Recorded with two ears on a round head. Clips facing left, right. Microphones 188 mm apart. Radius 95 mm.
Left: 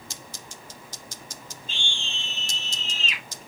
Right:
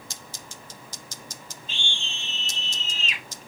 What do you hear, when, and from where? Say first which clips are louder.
1.7 s a scream: right 1 dB; 80° left, 4 m